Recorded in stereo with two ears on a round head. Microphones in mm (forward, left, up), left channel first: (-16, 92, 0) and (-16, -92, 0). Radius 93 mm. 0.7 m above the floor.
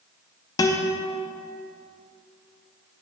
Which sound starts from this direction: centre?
A guitar, at 0.6 s.